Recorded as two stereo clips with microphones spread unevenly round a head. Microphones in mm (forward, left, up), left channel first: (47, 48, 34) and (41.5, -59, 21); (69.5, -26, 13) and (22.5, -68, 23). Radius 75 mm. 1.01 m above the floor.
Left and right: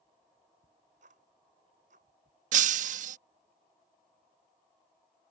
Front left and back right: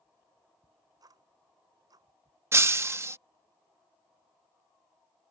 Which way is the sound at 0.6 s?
120° right.